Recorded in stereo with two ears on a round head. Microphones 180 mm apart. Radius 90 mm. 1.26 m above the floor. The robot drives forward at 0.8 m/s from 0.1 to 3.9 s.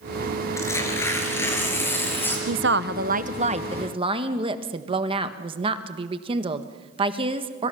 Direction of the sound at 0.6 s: 15° left (ahead or behind).